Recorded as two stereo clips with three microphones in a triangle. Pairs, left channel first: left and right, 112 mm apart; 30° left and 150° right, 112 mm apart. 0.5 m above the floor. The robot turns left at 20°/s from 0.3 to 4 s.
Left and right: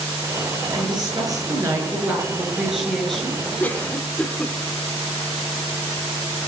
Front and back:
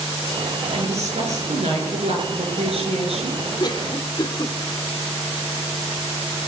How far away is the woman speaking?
About 7 m.